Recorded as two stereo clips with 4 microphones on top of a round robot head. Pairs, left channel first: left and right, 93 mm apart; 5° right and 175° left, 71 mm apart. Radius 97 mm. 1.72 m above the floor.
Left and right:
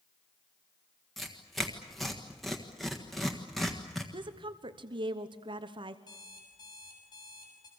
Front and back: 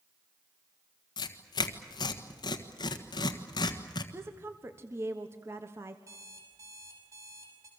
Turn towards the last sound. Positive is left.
turn(degrees=135)